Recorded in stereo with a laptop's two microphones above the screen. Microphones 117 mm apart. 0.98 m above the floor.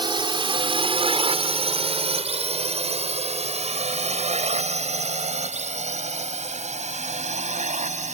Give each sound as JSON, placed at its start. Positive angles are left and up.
{"t": 0.0, "sound": "a drone", "side_deg": -40}